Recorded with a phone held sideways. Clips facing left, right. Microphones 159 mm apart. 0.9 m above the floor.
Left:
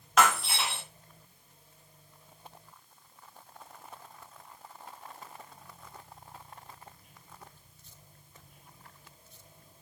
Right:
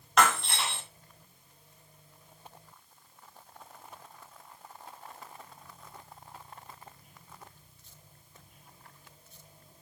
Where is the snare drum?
No snare drum in this recording.